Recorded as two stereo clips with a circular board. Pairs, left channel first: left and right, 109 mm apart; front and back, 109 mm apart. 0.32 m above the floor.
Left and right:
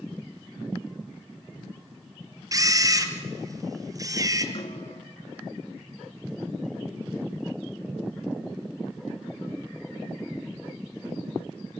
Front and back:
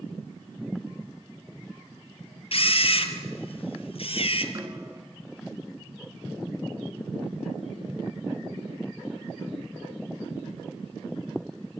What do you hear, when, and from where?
2.5 s a camera shutter: 30° right, 1.8 m
4.5 s a snare drum: 120° left, 1.8 m